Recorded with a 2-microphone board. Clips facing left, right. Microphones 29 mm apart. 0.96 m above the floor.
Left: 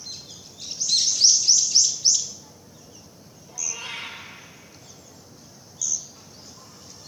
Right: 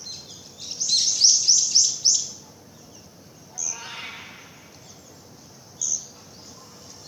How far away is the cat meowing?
About 9.5 m.